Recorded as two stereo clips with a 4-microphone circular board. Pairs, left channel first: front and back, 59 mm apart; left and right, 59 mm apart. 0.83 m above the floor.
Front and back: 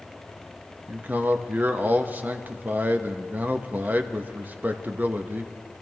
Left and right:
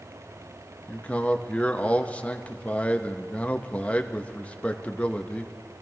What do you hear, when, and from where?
0.9 s a man speaking: 140° left, 0.8 m